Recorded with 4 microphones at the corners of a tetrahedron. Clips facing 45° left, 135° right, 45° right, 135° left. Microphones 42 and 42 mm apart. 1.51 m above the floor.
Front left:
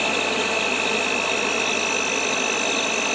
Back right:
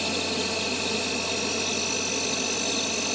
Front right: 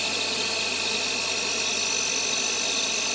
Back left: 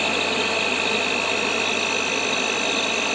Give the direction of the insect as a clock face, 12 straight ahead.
9 o'clock.